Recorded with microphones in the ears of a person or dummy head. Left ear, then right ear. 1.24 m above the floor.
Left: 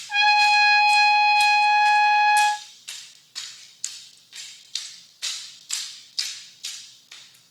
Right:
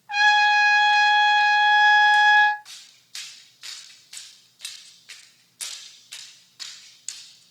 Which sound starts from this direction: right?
A trumpet, at 0.1 s.